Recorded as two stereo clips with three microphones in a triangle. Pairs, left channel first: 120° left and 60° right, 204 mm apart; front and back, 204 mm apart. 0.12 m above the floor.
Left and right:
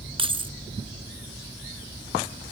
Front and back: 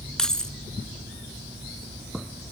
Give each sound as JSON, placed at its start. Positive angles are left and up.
{"t": 0.2, "sound": "keys jangling", "azimuth_deg": -85, "distance_m": 1.0}